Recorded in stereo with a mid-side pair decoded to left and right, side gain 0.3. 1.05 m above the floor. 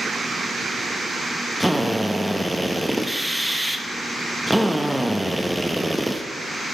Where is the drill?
Straight ahead, 0.9 m.